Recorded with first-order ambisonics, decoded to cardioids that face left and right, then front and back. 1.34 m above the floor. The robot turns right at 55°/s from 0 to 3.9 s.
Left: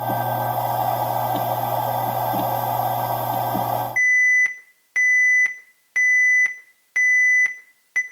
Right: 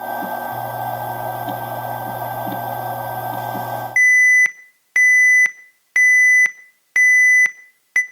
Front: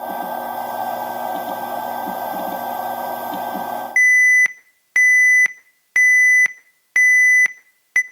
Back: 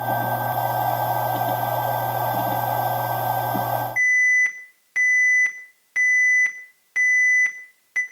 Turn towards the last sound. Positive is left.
turn(degrees=-35)